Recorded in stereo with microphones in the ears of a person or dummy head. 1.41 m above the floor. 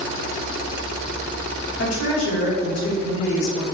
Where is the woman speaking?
80° left, 1.2 m.